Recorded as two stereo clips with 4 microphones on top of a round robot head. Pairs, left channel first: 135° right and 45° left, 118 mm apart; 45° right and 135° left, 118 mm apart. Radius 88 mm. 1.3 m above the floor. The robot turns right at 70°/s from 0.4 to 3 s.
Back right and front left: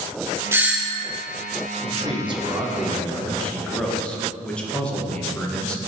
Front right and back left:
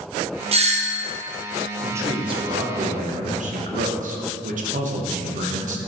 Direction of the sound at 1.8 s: 60° left.